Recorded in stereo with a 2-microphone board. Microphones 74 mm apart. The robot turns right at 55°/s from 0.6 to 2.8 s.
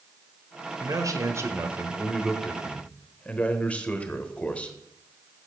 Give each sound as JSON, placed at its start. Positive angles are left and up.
{"t": 0.8, "sound": "a man speaking", "azimuth_deg": -85, "distance_m": 1.2}